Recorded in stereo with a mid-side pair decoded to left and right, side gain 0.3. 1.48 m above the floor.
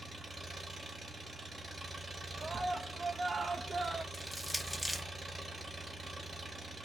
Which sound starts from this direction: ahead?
Crushing, at 4.1 s.